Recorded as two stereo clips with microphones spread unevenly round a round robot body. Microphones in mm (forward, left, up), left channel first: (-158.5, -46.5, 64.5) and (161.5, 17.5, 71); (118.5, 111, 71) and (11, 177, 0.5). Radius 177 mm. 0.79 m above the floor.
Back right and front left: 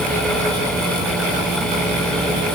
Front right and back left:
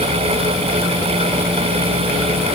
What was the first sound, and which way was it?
Only background noise.